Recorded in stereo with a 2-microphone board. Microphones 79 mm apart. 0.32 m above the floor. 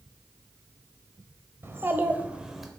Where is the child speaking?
30° right (ahead or behind), 0.9 m; by 2.7 s centre (ahead or behind), 0.7 m.